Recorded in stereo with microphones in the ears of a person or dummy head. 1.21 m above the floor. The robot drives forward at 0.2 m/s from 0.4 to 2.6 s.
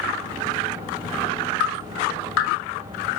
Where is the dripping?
70° left (ahead or behind), 1.7 m; by 2.5 s 75° left (ahead or behind), 1.7 m.